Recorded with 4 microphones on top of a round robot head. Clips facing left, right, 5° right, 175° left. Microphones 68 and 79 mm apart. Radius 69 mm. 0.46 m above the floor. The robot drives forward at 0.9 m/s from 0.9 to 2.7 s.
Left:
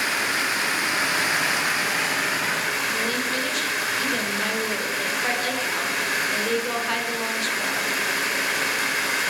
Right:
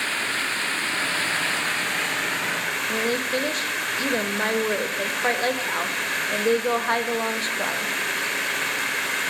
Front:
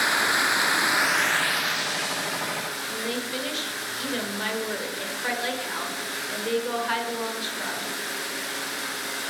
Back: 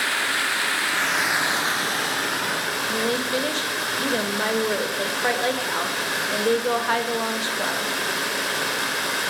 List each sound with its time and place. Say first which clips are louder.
0.0 s running water: left 2 dB, front 1 dB; 25° left, 0.7 m; by 9.3 s 175° left, 1.5 m
2.9 s a woman speaking: right 1 dB, back 8 dB; 135° right, 1.9 m